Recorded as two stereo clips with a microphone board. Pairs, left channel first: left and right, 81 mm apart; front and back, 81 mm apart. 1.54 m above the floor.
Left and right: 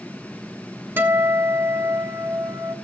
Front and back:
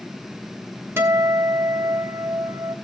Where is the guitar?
135° right, 1.4 m.